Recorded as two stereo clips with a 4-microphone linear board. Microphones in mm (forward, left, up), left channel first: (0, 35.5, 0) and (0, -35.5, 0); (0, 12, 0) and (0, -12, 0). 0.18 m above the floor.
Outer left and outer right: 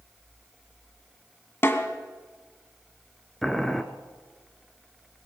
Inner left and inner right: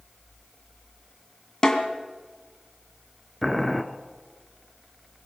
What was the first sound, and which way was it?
A snare drum, 35° left (ahead or behind).